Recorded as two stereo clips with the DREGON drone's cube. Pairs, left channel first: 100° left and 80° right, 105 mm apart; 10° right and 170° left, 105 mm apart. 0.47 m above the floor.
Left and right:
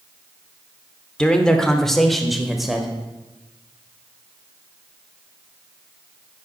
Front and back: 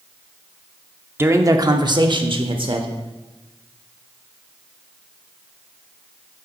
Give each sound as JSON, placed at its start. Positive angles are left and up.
{"t": 1.2, "sound": "a man speaking", "azimuth_deg": 160, "distance_m": 0.7}